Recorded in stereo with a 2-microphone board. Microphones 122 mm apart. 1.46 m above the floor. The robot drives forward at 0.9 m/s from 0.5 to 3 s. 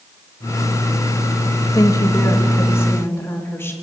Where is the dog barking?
I don't hear a dog barking.